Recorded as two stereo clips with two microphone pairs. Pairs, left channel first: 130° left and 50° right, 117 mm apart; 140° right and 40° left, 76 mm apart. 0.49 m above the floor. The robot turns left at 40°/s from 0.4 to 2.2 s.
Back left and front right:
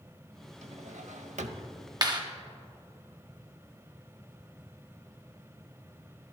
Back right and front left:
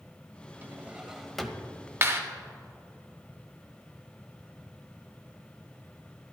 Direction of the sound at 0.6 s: 25° right.